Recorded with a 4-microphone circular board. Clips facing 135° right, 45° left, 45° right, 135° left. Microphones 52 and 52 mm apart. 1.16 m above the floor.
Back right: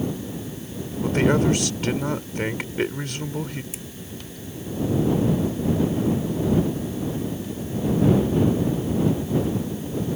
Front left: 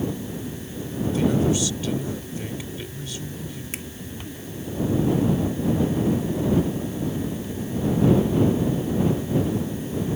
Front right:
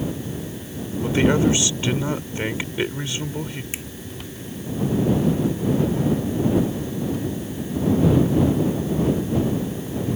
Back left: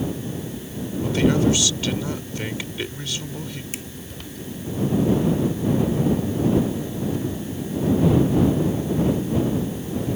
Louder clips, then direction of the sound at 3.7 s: Front left 4 dB, front right 1 dB; 20° left.